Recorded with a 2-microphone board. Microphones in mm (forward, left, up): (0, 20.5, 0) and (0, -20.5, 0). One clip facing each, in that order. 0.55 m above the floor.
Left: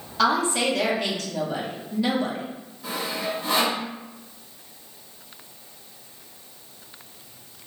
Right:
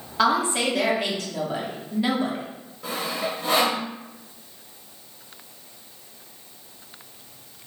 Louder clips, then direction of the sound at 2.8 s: Right 1 dB; 60° right (ahead or behind).